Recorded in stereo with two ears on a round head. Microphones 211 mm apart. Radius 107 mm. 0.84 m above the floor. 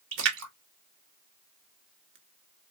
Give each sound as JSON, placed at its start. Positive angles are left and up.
{"t": 0.1, "sound": "a splash", "side_deg": -55, "distance_m": 1.5}